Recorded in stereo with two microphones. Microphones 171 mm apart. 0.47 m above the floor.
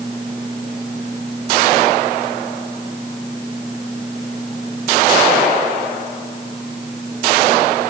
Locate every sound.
Only background noise.